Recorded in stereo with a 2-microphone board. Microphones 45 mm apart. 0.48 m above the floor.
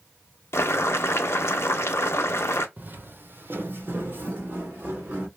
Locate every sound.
0.5 s boiling: 80° left, 0.6 m
2.8 s footsteps: 40° right (ahead or behind), 0.6 m; by 5.3 s 45° right (ahead or behind), 1.6 m